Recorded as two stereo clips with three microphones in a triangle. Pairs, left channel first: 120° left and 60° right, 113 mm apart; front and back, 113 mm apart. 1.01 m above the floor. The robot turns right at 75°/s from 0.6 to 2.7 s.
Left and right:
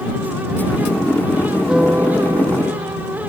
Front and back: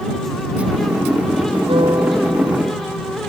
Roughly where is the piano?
Behind right.